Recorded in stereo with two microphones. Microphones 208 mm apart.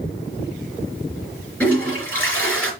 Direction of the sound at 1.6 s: 5° left (ahead or behind).